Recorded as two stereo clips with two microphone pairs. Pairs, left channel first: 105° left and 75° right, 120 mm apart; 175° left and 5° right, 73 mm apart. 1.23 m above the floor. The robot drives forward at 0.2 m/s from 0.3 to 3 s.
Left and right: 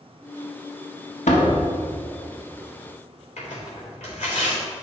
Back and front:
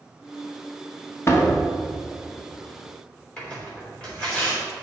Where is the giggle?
No giggle in this recording.